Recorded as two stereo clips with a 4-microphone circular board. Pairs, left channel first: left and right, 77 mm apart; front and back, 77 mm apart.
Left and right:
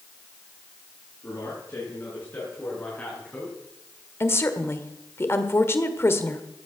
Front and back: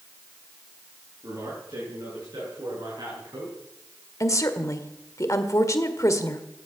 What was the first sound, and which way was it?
A man speaking, 145° left.